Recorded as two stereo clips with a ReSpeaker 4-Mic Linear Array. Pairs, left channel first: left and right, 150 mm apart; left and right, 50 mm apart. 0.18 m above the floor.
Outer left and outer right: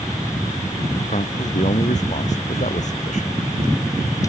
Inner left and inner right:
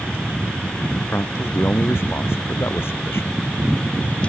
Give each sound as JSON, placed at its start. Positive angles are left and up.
{"t": 1.1, "sound": "a man speaking", "side_deg": 55}